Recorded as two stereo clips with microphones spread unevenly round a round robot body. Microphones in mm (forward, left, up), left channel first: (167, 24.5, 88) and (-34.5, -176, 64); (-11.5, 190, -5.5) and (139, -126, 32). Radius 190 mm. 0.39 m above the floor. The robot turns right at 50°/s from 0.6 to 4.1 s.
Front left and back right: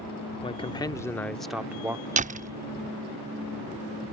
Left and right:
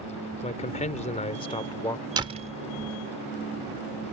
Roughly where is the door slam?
Behind right.